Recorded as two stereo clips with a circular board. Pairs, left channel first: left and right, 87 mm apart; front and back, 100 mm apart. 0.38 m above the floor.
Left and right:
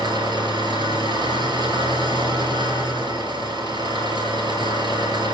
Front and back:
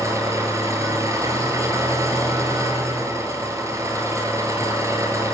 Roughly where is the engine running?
Behind right.